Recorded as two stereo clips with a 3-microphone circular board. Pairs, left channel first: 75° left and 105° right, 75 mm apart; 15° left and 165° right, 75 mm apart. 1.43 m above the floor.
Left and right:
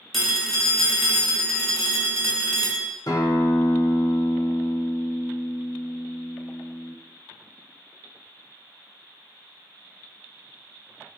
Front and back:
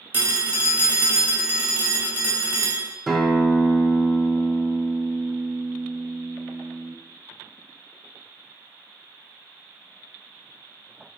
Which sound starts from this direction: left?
A guitar, at 3.1 s.